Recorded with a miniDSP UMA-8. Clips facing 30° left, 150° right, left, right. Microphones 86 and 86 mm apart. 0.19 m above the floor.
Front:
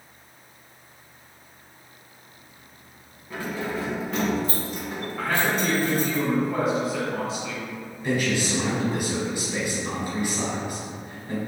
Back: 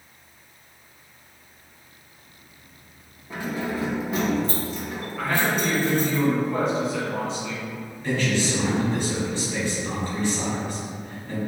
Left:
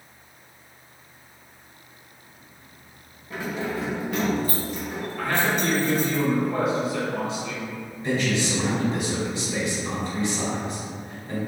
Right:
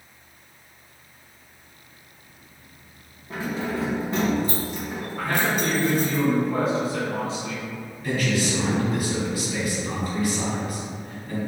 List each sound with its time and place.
3.3 s keys jangling: 100° right, 1.3 m; by 6.2 s straight ahead, 1.5 m
5.2 s a man speaking: 55° right, 1.5 m
8.0 s a man speaking: 85° left, 1.0 m